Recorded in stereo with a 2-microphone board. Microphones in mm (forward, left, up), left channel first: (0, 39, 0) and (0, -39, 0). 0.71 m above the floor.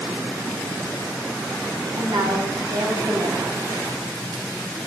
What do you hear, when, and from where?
1.9 s a woman speaking: 65° right (ahead or behind), 6.5 m